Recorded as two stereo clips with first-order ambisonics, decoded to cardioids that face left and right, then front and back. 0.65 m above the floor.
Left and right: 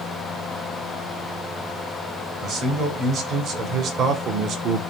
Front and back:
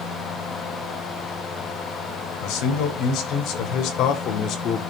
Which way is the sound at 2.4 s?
30° right.